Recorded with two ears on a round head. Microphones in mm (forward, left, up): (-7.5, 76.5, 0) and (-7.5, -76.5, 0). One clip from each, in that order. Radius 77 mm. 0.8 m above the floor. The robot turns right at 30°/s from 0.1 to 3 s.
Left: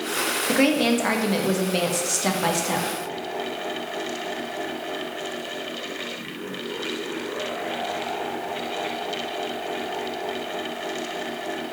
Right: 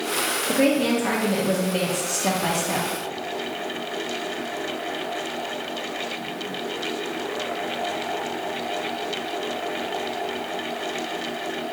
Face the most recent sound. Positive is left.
turn(degrees=165)